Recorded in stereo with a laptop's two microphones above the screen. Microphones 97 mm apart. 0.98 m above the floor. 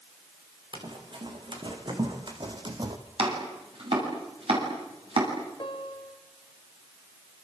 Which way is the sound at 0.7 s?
55° right (ahead or behind).